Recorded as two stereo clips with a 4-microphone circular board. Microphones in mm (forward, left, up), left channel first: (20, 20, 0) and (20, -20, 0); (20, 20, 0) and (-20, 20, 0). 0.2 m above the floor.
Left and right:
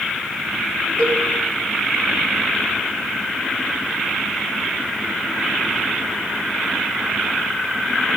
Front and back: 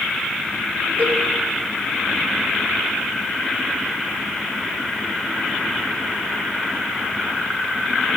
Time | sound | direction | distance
1.0 | a cowbell | 145° left | 4 m